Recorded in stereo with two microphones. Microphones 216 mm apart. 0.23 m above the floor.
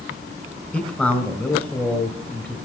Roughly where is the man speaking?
Centre.